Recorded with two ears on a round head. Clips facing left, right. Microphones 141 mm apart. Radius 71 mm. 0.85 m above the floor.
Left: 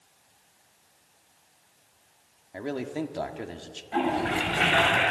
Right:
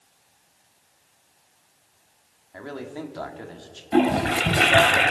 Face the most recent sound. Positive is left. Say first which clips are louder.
# right 6 dB
turn(degrees=-55)  # may be behind; listen again after turning